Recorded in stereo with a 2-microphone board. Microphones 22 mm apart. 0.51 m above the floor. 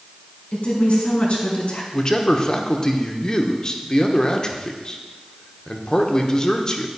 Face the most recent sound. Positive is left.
turn(degrees=30)  # may be behind; listen again after turning